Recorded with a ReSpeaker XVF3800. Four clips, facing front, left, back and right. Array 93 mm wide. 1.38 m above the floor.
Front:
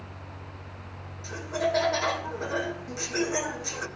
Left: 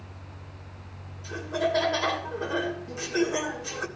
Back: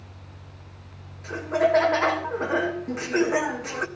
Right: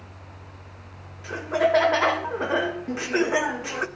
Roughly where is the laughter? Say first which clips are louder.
Right 5 dB, back 6 dB; behind right.